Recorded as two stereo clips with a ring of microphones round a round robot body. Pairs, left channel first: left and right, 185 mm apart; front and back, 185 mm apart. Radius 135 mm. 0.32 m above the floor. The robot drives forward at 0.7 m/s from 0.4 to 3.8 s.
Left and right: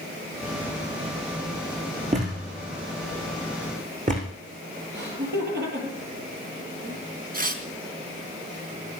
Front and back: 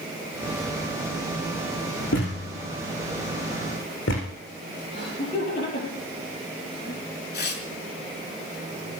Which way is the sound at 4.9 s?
65° right.